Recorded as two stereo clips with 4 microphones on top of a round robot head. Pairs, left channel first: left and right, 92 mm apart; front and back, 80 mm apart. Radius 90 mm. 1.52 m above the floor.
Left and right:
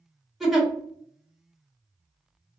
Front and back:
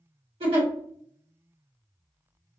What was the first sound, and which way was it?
A giggle, straight behind.